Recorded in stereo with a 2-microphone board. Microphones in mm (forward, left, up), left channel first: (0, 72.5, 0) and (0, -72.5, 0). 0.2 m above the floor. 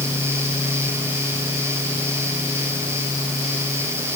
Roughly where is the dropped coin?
I don't hear a dropped coin.